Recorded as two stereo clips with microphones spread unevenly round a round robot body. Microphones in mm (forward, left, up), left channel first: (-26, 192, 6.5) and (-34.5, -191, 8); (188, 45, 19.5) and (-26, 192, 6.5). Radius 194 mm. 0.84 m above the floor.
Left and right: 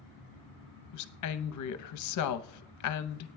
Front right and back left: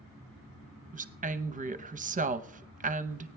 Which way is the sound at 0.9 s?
100° left.